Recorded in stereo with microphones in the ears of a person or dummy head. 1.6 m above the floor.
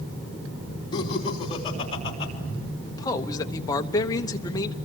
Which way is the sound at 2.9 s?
25° left (ahead or behind).